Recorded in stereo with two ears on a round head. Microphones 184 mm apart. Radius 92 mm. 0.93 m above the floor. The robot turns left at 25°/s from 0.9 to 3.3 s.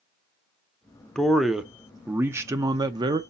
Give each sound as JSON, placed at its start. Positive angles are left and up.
{"t": 1.1, "sound": "a man speaking", "azimuth_deg": 5, "distance_m": 0.5}